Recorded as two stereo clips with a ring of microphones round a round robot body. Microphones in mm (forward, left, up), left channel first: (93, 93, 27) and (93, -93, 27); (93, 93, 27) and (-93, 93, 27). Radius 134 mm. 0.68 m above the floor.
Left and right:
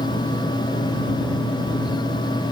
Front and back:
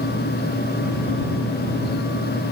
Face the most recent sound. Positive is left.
No sound to turn to.